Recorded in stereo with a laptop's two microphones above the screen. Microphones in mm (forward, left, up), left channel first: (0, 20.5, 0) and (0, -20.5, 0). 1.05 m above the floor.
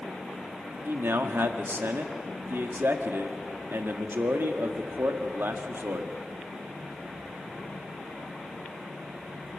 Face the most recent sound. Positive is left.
turn(degrees=-80)